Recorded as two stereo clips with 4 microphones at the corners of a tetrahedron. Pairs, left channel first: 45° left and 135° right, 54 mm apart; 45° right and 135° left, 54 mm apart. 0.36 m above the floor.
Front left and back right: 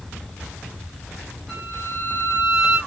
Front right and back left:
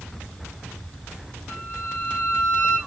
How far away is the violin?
About 1.5 m.